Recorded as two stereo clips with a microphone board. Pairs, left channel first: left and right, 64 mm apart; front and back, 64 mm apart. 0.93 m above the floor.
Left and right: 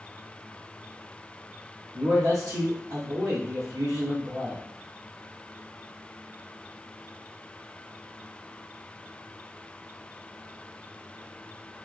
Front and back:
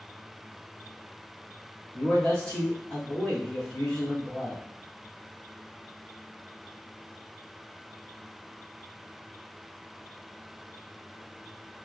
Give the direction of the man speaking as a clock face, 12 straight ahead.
2 o'clock.